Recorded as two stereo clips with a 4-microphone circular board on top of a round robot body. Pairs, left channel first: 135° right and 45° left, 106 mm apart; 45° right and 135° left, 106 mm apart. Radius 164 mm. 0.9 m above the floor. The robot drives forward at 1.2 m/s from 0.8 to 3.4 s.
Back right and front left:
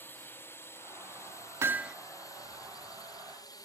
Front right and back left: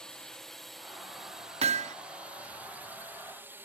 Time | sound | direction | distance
0.0 | a drone | 120° right | ?
1.6 | hammering | 115° left | ?